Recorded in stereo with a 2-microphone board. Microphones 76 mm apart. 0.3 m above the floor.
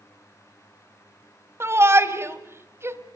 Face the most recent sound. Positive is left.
turn(degrees=-35)  # may be behind; listen again after turning